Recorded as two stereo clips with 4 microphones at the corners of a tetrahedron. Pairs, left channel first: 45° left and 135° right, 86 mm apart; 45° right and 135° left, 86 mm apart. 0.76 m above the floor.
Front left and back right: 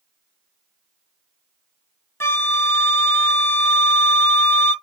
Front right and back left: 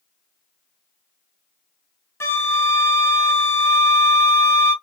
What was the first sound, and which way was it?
A flute, straight ahead.